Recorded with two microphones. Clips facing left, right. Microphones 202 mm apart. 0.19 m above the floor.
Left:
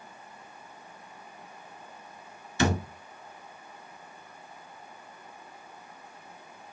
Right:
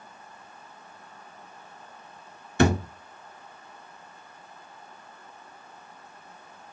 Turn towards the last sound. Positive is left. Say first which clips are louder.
# right 5 dB
turn(degrees=-55)  # may be behind; listen again after turning